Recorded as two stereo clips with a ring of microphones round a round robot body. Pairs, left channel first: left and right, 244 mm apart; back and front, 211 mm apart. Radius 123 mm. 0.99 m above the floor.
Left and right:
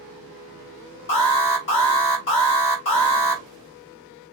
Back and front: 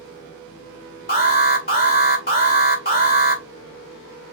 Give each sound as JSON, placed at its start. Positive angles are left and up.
{"t": 1.1, "sound": "an alarm", "azimuth_deg": 135, "distance_m": 3.5}